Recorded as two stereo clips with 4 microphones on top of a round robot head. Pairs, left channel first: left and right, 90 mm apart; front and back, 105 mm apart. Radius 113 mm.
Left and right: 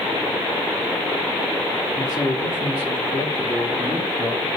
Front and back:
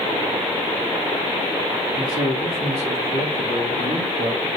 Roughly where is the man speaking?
Behind left.